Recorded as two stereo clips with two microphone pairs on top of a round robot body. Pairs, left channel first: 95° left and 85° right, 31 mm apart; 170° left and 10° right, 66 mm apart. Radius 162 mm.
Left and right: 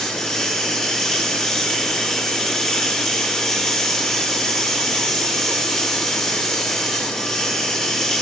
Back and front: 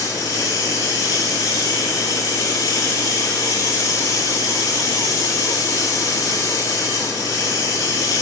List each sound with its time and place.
0.0 s running water: 165° left, 4 m